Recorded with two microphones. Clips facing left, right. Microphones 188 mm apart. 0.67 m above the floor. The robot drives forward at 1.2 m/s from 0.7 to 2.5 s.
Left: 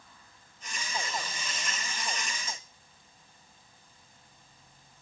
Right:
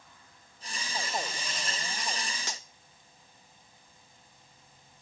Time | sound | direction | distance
2.5 | cutlery clinking | 80° right | 0.9 m